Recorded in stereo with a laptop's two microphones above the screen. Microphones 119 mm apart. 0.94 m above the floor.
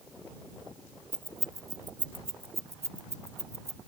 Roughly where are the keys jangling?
Centre.